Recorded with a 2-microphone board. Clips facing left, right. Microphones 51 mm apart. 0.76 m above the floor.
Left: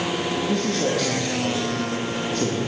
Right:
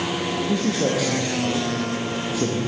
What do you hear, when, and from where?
0.5 s a man speaking: 10° right (ahead or behind), 1.0 m